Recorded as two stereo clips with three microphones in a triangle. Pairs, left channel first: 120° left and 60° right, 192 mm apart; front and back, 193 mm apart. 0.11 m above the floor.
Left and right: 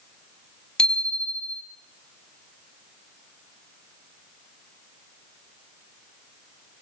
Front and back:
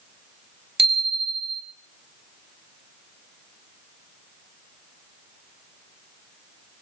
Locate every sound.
0.8 s a bicycle bell: 155° right, 3 m